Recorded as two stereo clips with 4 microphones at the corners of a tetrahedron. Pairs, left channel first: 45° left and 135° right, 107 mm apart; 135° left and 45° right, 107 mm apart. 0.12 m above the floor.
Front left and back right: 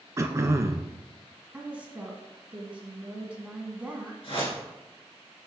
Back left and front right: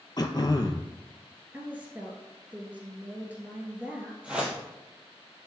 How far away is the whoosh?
About 2.5 m.